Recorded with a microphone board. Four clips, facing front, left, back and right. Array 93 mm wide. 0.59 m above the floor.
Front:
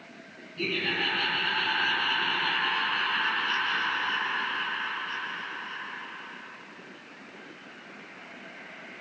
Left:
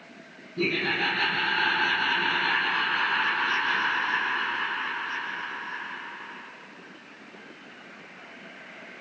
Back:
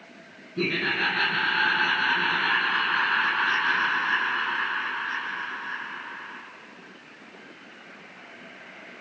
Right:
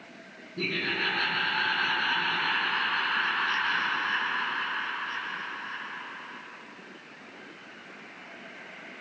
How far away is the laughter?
About 6 m.